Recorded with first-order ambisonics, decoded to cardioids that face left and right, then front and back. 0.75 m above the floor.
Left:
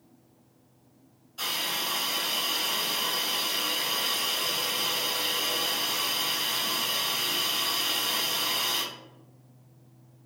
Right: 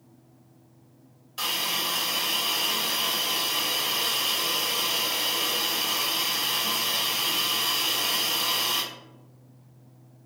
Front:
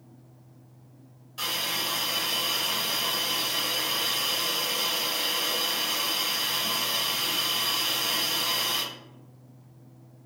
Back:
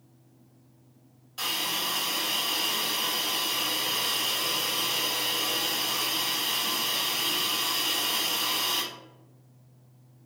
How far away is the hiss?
About 1.2 m.